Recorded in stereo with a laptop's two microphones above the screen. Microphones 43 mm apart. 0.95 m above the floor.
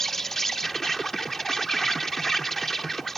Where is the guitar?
No guitar in this recording.